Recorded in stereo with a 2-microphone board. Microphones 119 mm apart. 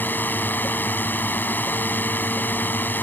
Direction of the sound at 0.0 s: 15° left (ahead or behind).